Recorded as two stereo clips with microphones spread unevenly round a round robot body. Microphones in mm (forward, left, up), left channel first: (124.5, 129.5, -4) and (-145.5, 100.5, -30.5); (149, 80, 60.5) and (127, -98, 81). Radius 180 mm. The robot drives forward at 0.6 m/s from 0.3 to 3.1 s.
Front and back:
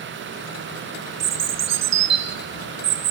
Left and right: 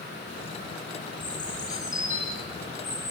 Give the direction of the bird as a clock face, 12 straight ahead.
7 o'clock.